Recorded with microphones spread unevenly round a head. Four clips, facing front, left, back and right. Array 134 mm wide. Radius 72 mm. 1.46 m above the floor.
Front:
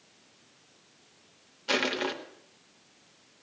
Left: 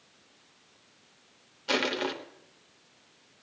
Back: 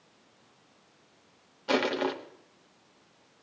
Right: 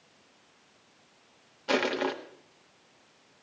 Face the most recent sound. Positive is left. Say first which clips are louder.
# right 2 dB, back 3 dB
turn(degrees=-130)